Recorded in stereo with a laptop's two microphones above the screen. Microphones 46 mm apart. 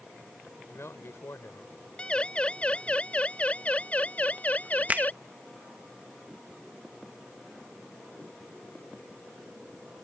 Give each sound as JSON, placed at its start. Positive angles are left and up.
{"t": 0.7, "sound": "a man speaking", "side_deg": 65}
{"t": 2.0, "sound": "a siren", "side_deg": 20}
{"t": 4.9, "sound": "a finger snap", "side_deg": -35}